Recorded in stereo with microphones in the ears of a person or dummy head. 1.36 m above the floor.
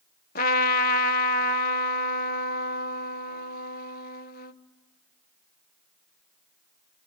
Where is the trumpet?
50° left (ahead or behind), 0.9 m.